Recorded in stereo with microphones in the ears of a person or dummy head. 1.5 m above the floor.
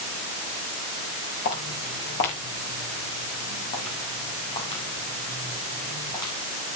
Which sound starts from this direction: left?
Footsteps, at 1.4 s.